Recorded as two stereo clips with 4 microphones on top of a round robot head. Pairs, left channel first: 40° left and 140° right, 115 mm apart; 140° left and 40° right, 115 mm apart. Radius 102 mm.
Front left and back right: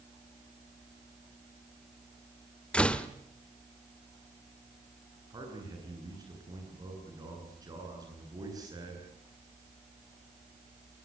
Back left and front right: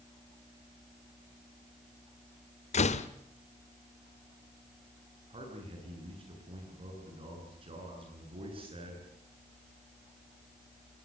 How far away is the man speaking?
About 9.5 m.